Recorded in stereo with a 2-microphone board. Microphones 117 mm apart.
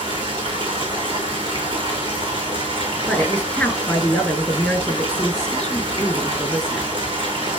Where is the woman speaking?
5° left (ahead or behind), 4 m.